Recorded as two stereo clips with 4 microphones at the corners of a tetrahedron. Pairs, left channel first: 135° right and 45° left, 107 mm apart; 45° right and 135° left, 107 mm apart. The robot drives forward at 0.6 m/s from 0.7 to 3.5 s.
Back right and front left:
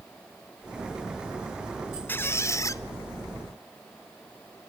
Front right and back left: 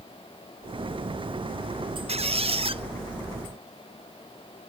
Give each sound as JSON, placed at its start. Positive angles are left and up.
{"t": 2.1, "sound": "a squeak", "azimuth_deg": 155, "distance_m": 0.5}